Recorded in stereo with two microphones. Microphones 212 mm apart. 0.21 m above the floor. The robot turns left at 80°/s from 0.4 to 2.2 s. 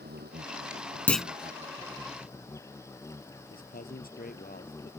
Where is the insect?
50° right; by 5.0 s 165° left.